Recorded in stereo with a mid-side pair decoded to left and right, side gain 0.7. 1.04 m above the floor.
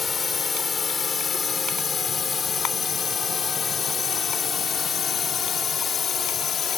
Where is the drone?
25° left; by 6.8 s 40° left.